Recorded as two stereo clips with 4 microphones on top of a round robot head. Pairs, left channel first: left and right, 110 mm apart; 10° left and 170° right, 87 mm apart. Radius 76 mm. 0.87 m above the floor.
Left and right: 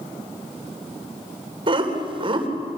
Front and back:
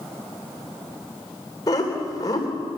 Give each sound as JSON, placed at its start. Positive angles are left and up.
{"t": 1.7, "sound": "laughter", "azimuth_deg": -50, "distance_m": 3.0}